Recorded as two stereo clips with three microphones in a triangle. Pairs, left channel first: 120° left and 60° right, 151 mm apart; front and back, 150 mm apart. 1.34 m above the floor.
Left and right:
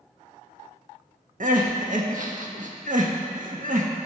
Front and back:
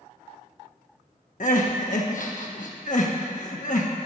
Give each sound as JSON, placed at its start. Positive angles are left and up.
{"t": 1.4, "sound": "crying", "azimuth_deg": -30, "distance_m": 1.3}